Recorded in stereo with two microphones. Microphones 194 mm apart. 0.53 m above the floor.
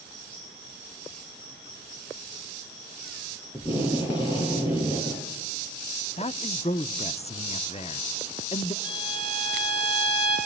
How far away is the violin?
About 8 m.